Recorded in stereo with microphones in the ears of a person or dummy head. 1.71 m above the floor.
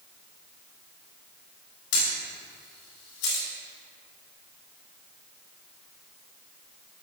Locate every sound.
1.9 s a camera shutter: 65° left (ahead or behind), 3 m